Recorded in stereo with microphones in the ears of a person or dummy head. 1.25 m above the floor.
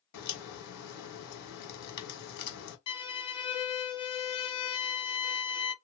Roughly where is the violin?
Left.